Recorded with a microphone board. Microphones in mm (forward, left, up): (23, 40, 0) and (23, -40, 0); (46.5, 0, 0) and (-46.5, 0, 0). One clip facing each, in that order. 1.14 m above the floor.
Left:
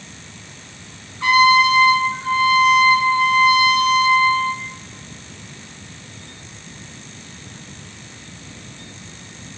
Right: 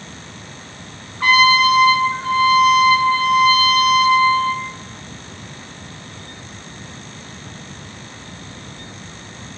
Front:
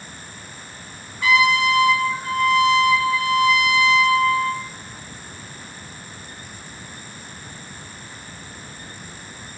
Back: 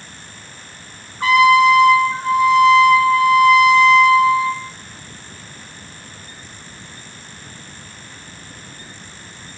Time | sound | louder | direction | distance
1.2 | a trumpet | even, back 7 dB | 125° right | 1.0 m